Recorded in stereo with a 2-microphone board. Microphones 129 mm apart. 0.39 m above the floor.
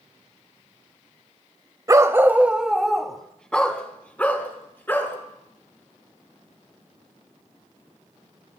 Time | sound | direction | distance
1.9 | a dog barking | 30° right (ahead or behind) | 0.7 m